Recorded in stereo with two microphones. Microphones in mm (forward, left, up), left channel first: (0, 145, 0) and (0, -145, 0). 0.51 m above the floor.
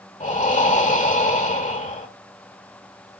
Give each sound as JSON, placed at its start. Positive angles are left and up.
{"t": 0.2, "sound": "breathing", "side_deg": 25, "distance_m": 1.6}